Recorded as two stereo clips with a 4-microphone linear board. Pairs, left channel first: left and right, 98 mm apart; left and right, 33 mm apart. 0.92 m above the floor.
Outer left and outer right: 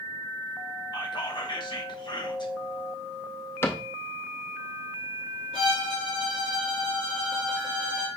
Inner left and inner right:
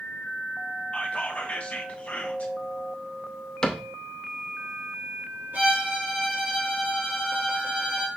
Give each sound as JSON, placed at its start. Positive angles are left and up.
{"t": 0.9, "sound": "whispering", "side_deg": 50, "distance_m": 1.0}
{"t": 3.6, "sound": "a cupboard door", "side_deg": 25, "distance_m": 0.7}
{"t": 5.5, "sound": "a violin", "side_deg": -65, "distance_m": 2.0}